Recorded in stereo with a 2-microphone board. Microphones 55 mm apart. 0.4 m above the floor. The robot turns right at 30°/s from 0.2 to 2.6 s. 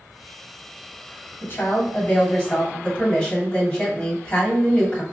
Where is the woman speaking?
125° left, 2 m; by 5.0 s 160° left, 2 m.